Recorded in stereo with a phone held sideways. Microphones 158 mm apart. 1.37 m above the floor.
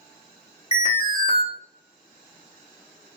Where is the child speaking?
No child speaking in this recording.